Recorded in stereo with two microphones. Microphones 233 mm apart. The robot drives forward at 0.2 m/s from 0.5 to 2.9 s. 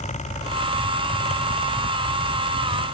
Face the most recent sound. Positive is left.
No sound to turn to.